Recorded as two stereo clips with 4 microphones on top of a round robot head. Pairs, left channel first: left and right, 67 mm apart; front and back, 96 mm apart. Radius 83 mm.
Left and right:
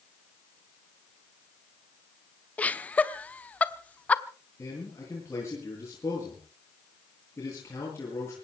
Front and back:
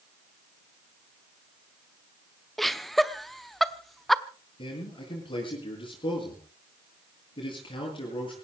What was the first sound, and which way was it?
Laughter, 85° left.